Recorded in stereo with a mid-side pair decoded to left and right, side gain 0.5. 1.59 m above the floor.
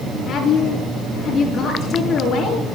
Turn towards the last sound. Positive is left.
turn(degrees=60)